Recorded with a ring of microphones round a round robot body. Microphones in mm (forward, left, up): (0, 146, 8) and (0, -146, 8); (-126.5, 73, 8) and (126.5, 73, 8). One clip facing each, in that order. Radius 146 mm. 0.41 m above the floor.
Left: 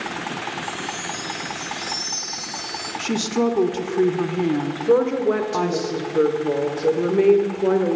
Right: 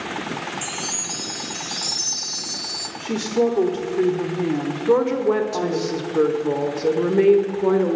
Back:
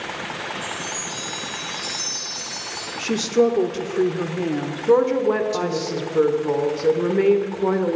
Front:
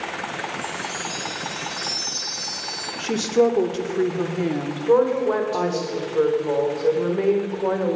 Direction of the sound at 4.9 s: 170° right.